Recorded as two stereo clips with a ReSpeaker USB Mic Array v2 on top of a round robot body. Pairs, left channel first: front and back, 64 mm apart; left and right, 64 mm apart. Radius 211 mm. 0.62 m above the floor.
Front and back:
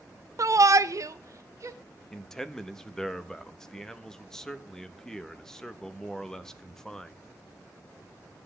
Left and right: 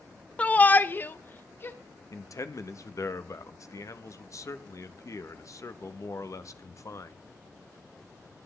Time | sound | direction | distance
0.4 | a shout | 155° left | 0.8 m
2.1 | a man speaking | 80° left | 1.4 m